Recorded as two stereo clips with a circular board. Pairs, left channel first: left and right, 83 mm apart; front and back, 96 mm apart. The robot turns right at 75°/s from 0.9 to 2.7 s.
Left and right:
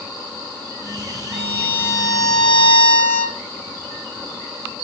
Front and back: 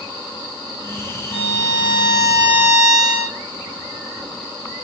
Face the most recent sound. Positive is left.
turn(degrees=90)